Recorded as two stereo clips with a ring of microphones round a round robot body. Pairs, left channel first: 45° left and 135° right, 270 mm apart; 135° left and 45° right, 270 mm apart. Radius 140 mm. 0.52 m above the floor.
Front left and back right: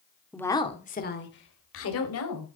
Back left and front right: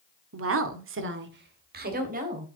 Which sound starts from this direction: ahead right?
A woman speaking, at 0.3 s.